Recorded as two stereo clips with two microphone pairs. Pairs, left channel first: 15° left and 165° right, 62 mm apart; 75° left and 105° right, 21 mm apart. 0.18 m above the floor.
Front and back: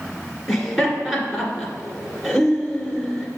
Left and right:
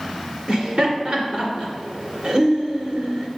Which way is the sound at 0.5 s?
80° right.